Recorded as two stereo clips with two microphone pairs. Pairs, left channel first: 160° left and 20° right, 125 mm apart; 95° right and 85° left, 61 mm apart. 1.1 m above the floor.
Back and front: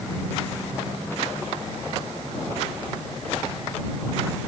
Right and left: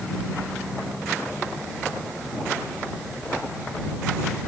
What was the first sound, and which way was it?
Only background noise.